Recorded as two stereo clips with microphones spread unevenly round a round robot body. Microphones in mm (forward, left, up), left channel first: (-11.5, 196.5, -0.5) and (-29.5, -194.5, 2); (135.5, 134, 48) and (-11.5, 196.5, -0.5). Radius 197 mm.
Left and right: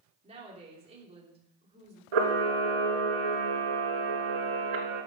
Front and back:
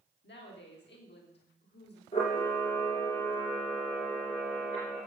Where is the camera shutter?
85° right, 2.5 m.